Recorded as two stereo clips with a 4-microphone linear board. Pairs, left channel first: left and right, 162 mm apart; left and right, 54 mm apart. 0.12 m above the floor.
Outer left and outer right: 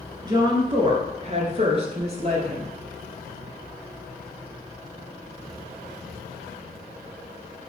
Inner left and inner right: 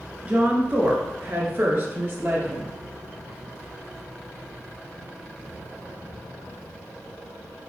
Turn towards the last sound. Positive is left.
turn(degrees=-40)  # may be behind; listen again after turning